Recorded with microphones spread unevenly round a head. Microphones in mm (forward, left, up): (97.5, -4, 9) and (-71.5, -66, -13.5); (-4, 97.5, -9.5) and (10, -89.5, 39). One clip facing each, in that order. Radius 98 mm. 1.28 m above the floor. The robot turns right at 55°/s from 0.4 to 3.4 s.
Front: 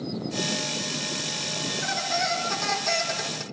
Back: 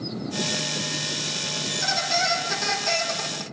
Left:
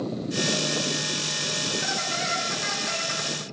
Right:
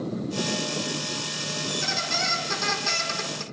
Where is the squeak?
135° right, 4 m; by 3.4 s 40° right, 4 m.